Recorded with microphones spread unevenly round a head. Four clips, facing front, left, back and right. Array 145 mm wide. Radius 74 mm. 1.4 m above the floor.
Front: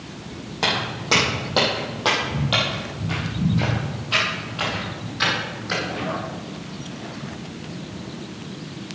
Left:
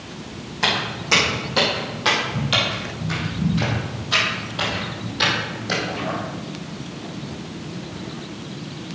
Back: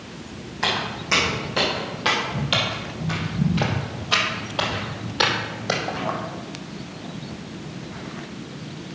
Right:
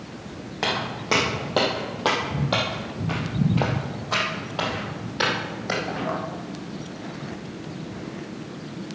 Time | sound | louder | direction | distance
0.6 | footsteps | left 2 dB, front 1 dB | 50° right | 4.5 m